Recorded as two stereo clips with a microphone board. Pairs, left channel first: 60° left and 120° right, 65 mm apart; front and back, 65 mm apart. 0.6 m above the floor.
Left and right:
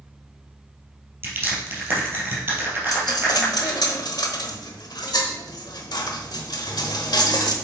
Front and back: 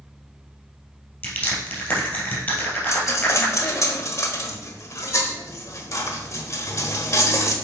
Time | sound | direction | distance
1.2 | crushing | 60° right | 2.5 m
2.9 | a dropped coin | 45° left | 1.0 m